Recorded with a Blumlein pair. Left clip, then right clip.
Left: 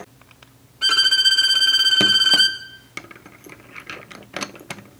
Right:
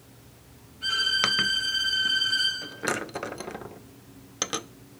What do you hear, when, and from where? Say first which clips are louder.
0.8 s a violin: left 9 dB; 50° left, 3 m